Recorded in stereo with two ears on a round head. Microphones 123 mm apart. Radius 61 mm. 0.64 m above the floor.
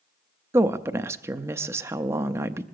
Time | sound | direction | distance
0.5 | a woman speaking | 20° right (ahead or behind) | 0.5 m